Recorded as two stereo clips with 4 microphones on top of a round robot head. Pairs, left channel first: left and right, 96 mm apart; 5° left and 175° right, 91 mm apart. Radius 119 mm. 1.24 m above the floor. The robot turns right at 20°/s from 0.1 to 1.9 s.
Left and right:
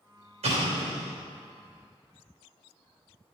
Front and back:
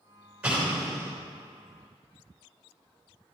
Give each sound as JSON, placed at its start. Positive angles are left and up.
{"t": 0.4, "sound": "an explosion", "azimuth_deg": -95, "distance_m": 3.5}